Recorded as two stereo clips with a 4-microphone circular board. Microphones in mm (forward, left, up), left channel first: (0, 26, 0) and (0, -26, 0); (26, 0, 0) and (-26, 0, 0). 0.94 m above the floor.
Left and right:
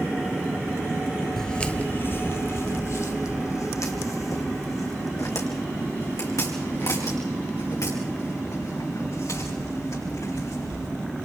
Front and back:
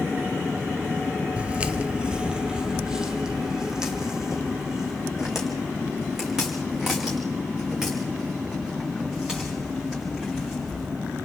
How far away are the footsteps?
About 0.9 m.